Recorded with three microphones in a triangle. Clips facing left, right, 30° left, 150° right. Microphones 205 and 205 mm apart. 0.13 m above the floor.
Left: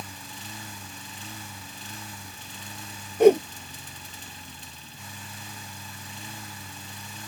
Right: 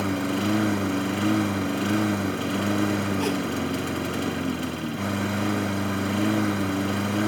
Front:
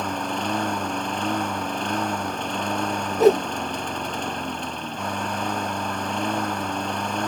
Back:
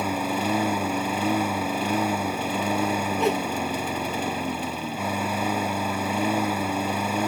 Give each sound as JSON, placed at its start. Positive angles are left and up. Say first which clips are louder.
{"t": 0.0, "sound": "a lawn mower", "louder": "right 21 dB, back 2 dB", "azimuth_deg": -70}
{"t": 3.2, "sound": "a whoosh", "louder": "left 10 dB, front 10 dB", "azimuth_deg": 75}